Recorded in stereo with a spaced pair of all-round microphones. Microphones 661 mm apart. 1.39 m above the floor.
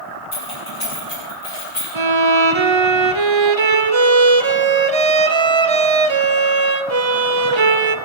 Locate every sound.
0.3 s keys jangling: 45° left (ahead or behind), 8.5 m; by 1.9 s 50° left (ahead or behind), 9.5 m
1.9 s a violin: 45° right (ahead or behind), 0.8 m